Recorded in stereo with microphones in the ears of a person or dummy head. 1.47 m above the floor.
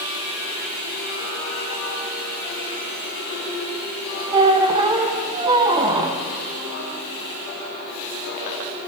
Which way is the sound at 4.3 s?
20° right (ahead or behind).